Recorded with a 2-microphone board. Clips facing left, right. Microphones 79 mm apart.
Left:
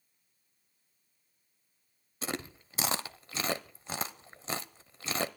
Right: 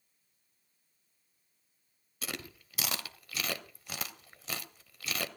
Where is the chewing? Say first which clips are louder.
Left 5 dB; 30° left (ahead or behind), 0.9 m.